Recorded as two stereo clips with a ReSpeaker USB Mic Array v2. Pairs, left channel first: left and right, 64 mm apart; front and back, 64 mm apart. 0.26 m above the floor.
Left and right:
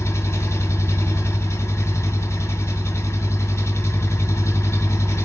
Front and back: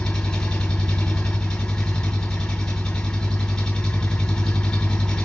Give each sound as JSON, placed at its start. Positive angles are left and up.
{"t": 0.0, "sound": "an engine running", "azimuth_deg": 75, "distance_m": 1.9}